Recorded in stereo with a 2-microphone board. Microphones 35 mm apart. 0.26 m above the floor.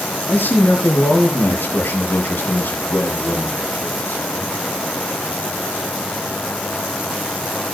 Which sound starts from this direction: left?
A man speaking, at 0.3 s.